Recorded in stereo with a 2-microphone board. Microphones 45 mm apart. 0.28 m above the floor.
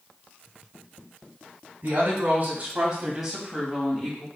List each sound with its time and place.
1.8 s a woman speaking: 50° right (ahead or behind), 2.5 m; by 4.3 s 20° left (ahead or behind), 3 m